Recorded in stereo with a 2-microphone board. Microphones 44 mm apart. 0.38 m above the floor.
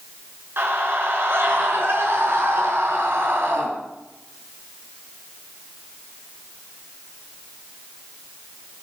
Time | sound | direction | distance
0.6 | a scream | 60° right (ahead or behind) | 5.5 m